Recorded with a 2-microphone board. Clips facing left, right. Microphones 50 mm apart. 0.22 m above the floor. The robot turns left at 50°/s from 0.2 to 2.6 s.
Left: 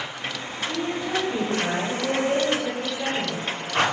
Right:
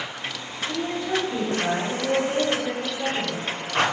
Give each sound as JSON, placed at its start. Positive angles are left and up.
{"t": 0.7, "sound": "a woman speaking", "azimuth_deg": 165, "distance_m": 2.0}